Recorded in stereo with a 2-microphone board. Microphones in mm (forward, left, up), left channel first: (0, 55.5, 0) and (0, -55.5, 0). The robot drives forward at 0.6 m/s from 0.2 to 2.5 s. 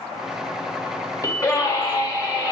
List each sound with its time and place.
1.2 s a scream: 30° left (ahead or behind), 1.7 m; by 2.5 s 35° left (ahead or behind), 1.6 m